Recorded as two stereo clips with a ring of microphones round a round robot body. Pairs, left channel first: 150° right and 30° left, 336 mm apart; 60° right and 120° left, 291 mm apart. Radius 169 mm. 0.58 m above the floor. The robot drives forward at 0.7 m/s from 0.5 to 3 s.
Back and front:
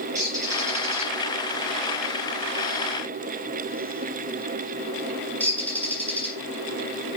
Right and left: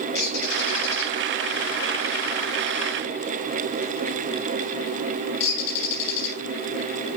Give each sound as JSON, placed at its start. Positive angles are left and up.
{"t": 0.1, "sound": "a bird", "azimuth_deg": -50, "distance_m": 6.5}